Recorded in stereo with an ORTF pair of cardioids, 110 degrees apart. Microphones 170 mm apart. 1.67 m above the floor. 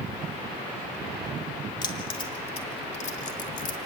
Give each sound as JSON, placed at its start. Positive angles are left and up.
{"t": 1.8, "sound": "keys jangling", "azimuth_deg": 30, "distance_m": 2.5}